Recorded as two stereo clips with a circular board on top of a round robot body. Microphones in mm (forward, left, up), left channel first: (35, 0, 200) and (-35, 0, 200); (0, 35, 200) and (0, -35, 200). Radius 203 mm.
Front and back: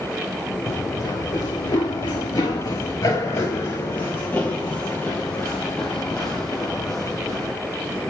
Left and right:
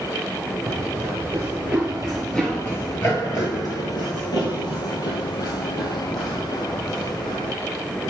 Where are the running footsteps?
40° right, 1.3 m; by 7.5 s 85° left, 3 m.